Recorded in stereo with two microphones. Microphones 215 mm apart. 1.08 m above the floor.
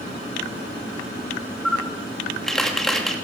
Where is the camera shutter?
Centre (ahead or behind), 2 m.